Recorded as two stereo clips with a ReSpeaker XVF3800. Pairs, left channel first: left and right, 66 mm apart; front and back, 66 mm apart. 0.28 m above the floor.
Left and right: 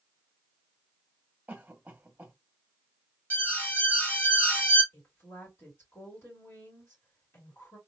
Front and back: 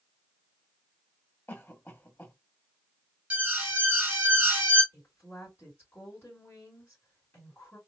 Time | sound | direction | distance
1.5 | a cough | 30° right | 1.8 m
3.3 | an alarm | 130° left | 2 m
4.9 | a woman speaking | 50° left | 3 m